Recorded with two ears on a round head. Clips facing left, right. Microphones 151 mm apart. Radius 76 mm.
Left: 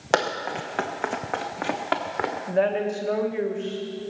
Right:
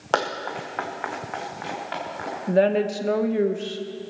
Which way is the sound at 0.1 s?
10° left (ahead or behind).